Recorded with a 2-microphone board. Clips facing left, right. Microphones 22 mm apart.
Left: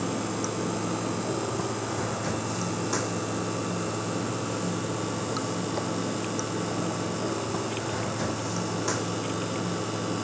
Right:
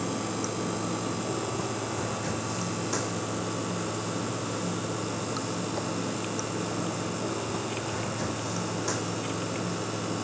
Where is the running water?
10° left (ahead or behind).